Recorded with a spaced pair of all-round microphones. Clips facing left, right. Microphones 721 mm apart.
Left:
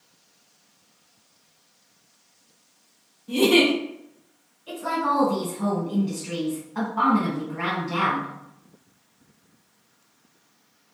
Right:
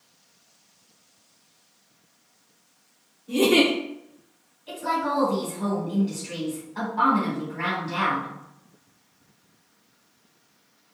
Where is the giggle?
35° left (ahead or behind), 0.7 m.